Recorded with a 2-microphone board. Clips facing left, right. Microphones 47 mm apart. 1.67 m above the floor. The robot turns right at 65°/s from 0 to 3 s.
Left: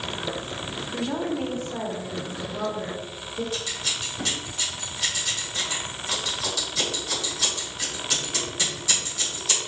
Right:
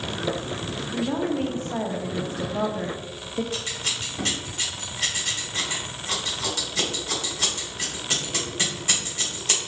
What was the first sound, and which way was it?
A woman speaking, straight behind.